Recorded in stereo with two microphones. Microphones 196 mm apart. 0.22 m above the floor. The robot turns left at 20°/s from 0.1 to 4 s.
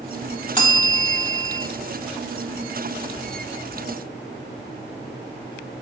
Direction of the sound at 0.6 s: 25° left (ahead or behind).